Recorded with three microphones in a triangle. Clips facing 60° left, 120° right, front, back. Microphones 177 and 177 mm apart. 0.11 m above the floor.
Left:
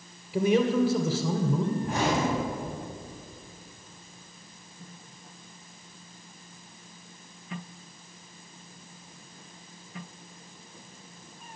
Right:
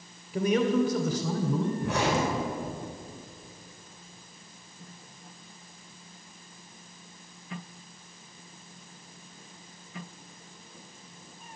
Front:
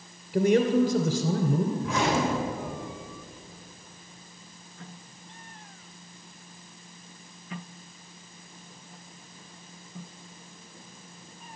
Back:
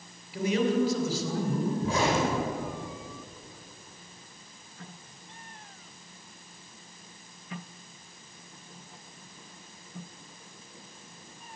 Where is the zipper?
125° right, 4.5 m.